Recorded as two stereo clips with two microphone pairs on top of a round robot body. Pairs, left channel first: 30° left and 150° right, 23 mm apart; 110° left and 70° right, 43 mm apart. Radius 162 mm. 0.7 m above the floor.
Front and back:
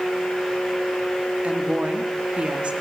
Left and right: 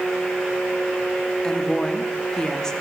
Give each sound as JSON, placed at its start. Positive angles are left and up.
{"t": 1.4, "sound": "a woman speaking", "azimuth_deg": 180, "distance_m": 2.0}